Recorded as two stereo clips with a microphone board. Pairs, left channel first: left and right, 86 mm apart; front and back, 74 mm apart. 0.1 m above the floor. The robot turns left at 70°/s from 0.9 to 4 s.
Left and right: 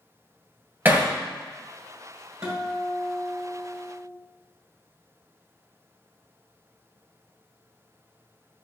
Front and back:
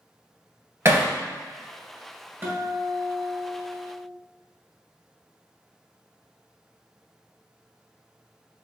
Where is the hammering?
140° right, 1.7 m; by 1.1 s 155° right, 1.7 m.